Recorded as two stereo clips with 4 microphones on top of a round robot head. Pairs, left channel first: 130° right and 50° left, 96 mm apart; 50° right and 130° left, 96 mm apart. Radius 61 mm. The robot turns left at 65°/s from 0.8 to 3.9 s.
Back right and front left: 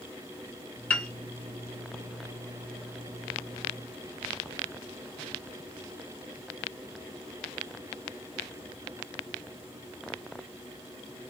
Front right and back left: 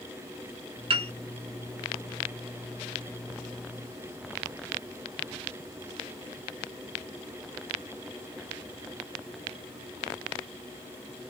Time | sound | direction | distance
0.9 | a piano | 155° left | 0.7 m